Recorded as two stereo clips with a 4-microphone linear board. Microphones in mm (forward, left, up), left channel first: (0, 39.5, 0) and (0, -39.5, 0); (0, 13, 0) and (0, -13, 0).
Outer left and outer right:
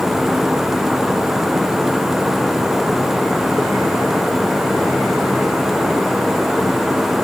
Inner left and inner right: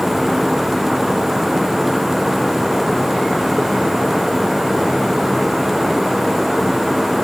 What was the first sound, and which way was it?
Only background noise.